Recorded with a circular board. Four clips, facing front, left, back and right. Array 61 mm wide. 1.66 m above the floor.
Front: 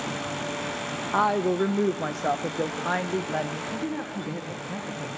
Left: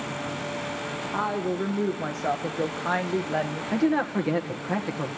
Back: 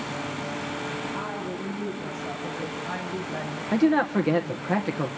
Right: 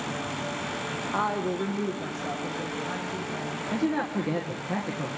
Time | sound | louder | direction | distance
1.1 | a woman speaking | even, front 9 dB | 5° right | 1.3 m
3.7 | a man speaking | left 4 dB, back 10 dB | 160° left | 1.6 m